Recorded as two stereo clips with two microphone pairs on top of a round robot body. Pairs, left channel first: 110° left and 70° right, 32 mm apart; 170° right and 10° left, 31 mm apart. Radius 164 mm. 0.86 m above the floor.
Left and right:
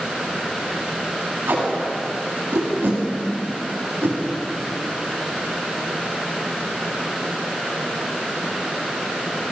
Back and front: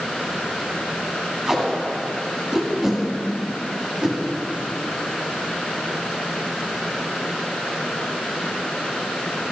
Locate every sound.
1.5 s tape being pulled: 65° right, 2 m